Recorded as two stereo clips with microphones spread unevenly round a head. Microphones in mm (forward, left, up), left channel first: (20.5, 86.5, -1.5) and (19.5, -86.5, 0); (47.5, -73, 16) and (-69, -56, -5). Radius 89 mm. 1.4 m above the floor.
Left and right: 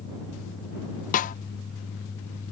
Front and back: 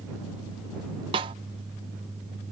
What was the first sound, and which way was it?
A snare drum, 115° left.